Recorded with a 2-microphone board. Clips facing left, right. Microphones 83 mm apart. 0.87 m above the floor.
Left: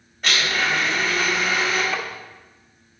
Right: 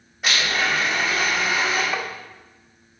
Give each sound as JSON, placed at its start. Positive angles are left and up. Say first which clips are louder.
{"t": 0.2, "sound": "a blender", "louder": "even", "side_deg": -10, "distance_m": 4.5}
{"t": 1.9, "sound": "tapping", "louder": "right 1 dB", "side_deg": -10, "distance_m": 0.8}